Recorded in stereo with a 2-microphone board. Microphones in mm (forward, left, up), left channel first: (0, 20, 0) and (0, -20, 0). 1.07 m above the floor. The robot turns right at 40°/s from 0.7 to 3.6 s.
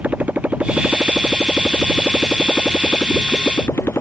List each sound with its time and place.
0.0 s a motorcycle: 40° right (ahead or behind); by 4.0 s 85° left